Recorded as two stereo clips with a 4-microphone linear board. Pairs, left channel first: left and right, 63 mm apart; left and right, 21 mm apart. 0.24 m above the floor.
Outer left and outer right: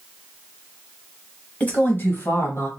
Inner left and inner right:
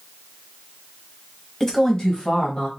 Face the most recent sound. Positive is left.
turn(degrees=50)  # may be behind; listen again after turning